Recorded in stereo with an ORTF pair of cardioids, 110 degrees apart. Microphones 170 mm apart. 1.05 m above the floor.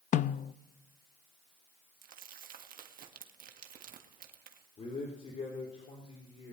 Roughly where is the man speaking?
Ahead left.